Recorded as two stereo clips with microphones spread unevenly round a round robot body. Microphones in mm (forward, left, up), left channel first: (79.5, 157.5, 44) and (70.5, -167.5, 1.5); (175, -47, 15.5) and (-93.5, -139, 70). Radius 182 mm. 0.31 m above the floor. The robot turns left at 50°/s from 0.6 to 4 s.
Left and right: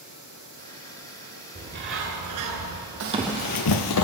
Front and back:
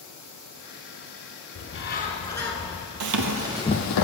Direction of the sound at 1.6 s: 20° right.